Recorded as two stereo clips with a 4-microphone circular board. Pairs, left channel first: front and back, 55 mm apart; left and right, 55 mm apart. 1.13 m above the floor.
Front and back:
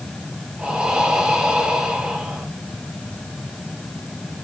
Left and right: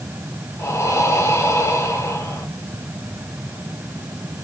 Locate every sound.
0.6 s breathing: 105° left, 2.5 m